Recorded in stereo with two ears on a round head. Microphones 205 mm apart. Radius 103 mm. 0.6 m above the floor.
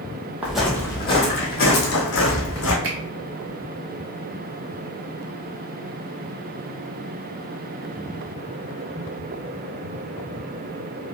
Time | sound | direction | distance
0.4 | footsteps | 5° right (ahead or behind) | 1.1 m
2.8 | a finger snap | 60° right (ahead or behind) | 1.2 m